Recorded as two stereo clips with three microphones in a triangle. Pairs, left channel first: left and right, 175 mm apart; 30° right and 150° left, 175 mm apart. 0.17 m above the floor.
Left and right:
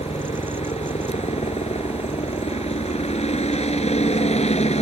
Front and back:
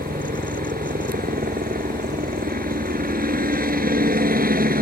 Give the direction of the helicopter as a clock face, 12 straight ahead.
7 o'clock.